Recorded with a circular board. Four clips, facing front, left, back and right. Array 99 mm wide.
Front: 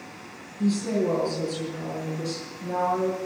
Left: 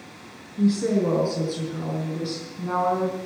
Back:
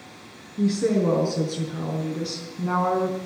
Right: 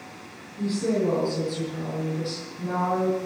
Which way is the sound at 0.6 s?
155° left.